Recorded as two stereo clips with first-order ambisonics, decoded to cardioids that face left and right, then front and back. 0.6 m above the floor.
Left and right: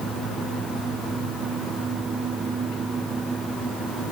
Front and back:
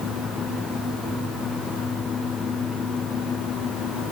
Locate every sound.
Only background noise.